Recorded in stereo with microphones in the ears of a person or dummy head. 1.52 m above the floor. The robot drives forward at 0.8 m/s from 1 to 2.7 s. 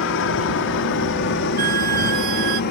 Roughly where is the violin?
Right.